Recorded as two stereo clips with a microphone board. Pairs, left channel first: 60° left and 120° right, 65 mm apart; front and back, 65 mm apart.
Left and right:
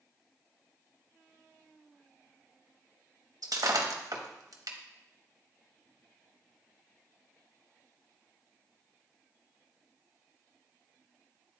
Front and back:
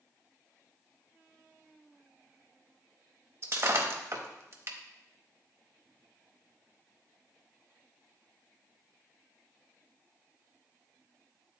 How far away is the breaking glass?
About 0.9 m.